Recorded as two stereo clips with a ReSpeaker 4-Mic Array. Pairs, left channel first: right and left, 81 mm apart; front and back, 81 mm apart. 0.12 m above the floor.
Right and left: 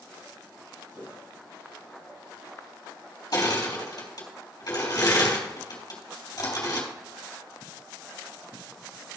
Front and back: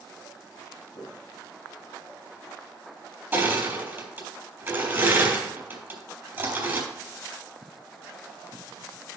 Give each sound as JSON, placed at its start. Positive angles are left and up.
{"t": 0.9, "sound": "footsteps", "azimuth_deg": 35, "distance_m": 4.5}
{"t": 3.3, "sound": "crushing", "azimuth_deg": -120, "distance_m": 3.5}